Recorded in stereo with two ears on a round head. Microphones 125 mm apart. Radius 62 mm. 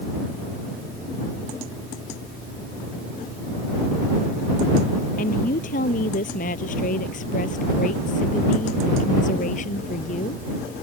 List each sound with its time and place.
5.2 s a woman speaking: 65° left (ahead or behind); by 10.4 s 60° left (ahead or behind)